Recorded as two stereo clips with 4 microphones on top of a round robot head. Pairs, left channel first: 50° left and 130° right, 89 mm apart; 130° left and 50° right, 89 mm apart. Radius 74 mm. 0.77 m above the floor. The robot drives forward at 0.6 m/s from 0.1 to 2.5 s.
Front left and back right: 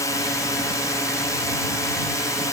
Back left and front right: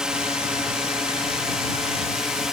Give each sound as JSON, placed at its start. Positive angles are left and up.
{"t": 0.0, "sound": "a drone", "azimuth_deg": 30}